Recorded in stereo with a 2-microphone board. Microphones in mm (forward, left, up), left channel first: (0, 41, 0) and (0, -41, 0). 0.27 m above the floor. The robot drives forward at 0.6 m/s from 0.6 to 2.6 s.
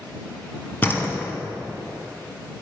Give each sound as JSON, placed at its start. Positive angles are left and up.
{"t": 0.8, "sound": "a door slam", "side_deg": 25, "distance_m": 1.7}